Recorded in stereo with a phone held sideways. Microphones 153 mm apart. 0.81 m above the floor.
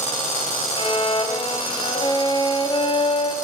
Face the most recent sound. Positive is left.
turn(degrees=30)  # may be behind; listen again after turning